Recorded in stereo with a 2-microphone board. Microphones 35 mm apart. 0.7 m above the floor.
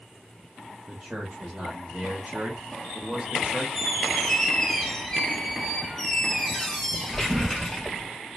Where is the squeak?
10° left (ahead or behind), 0.7 m.